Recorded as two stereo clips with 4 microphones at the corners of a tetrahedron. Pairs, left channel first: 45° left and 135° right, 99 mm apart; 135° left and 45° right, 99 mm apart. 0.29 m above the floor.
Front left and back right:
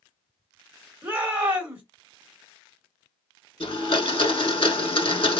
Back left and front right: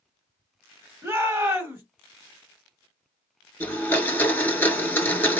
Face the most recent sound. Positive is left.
turn(degrees=65)